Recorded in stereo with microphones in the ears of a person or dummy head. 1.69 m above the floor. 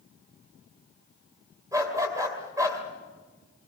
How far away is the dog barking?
About 2 m.